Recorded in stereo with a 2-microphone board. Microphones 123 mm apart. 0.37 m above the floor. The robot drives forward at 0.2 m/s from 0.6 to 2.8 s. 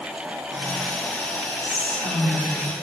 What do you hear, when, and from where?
1.6 s whispering: 15° left (ahead or behind), 1.0 m